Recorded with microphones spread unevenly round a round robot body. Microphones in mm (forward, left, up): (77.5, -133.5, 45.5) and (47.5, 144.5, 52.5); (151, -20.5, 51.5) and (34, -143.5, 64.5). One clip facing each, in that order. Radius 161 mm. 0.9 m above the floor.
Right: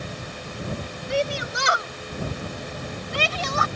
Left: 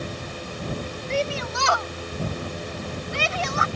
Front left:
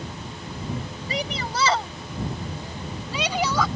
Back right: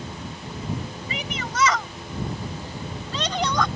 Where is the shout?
5° right; by 3.7 s 40° right.